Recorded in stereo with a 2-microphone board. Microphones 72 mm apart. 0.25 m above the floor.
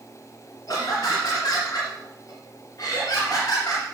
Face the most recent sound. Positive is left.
turn(degrees=45)  # may be behind; listen again after turning